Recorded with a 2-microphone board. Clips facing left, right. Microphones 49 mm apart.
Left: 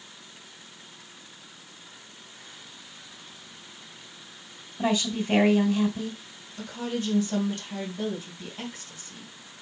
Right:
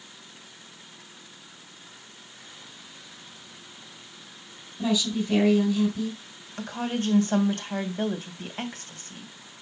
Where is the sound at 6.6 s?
50° right (ahead or behind), 2 m.